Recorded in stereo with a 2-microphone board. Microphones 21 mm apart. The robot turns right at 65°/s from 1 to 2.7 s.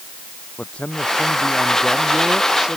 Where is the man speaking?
115° left; by 2.8 s 135° right.